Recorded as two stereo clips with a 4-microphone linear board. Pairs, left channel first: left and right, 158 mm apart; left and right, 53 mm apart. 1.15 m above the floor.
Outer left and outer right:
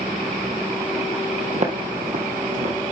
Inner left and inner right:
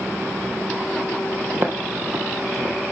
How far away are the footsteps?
About 1.7 m.